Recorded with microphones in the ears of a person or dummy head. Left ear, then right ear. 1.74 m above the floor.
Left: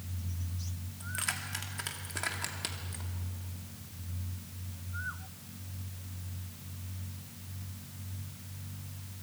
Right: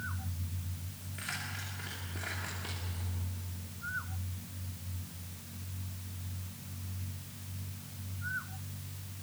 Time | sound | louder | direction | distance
1.0 | keys jangling | left 4 dB | 40° left (ahead or behind) | 2.5 m